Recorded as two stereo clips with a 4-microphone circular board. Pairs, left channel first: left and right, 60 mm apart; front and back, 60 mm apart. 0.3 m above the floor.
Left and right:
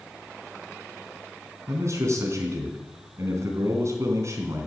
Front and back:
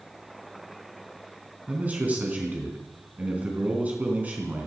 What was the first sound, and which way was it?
A man speaking, 120° right.